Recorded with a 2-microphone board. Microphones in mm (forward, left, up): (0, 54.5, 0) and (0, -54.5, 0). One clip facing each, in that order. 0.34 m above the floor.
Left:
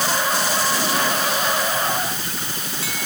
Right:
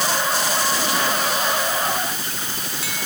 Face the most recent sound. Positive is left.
No sound to turn to.